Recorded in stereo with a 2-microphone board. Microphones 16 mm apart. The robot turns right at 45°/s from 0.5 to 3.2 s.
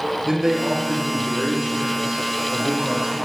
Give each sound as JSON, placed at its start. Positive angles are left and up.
{"t": 0.2, "sound": "a man speaking", "azimuth_deg": -155, "distance_m": 4.5}